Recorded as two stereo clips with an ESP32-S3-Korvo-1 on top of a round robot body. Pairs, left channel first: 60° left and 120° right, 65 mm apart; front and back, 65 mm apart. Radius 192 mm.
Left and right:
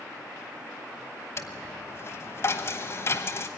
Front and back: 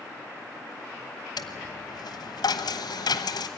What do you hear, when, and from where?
1.4 s a dropped coin: 10° left, 1.0 m